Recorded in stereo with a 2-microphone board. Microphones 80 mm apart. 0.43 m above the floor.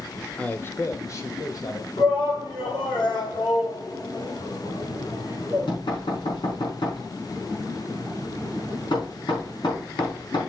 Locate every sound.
0.4 s a man speaking: 15° left (ahead or behind), 0.8 m; by 1.9 s 50° left (ahead or behind), 2 m
2.0 s a shout: 75° left (ahead or behind), 5 m
4.6 s knocking: 75° left (ahead or behind), 5 m